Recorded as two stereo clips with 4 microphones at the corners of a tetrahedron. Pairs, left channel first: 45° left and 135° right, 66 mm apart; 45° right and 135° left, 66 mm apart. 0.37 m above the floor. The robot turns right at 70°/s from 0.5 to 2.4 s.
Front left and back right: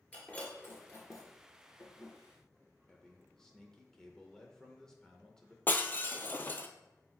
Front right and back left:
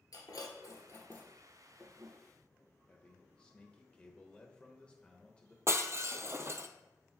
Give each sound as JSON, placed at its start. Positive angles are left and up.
{"t": 0.1, "sound": "breaking glass", "azimuth_deg": -25, "distance_m": 1.9}
{"t": 2.9, "sound": "a man speaking", "azimuth_deg": -15, "distance_m": 0.8}
{"t": 5.7, "sound": "breaking glass", "azimuth_deg": 100, "distance_m": 0.5}